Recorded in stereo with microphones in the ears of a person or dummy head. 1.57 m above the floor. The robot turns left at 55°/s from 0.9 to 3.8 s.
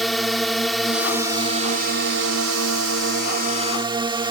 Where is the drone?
Straight ahead; by 4.3 s 160° right.